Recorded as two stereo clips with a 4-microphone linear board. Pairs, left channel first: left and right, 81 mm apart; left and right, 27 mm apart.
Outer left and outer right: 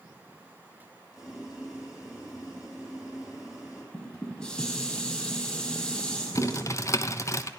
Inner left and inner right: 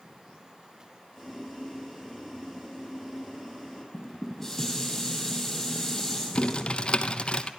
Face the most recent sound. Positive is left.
turn(degrees=40)  # may be behind; listen again after turning